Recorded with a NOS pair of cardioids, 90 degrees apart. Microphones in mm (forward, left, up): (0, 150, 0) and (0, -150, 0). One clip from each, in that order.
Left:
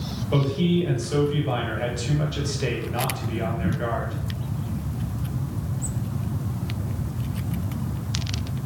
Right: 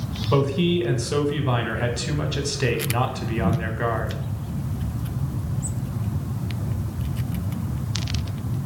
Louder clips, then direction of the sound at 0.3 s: Right 3 dB; 30° right.